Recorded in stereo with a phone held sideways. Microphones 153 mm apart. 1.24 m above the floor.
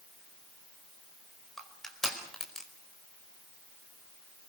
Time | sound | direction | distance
1.6 | crushing | 5° left (ahead or behind) | 4.5 m